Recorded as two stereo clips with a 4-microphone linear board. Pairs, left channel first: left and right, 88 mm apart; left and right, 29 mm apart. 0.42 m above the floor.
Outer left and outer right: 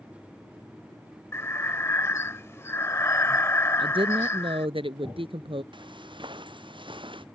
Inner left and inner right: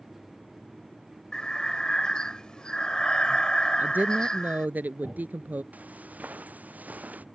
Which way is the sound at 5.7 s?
65° right (ahead or behind).